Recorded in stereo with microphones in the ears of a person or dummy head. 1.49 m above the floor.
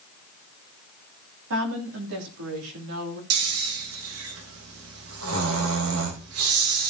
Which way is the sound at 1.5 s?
70° right (ahead or behind).